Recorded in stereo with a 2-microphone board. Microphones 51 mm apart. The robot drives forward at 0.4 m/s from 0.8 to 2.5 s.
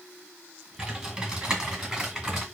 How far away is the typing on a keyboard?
About 1.3 m.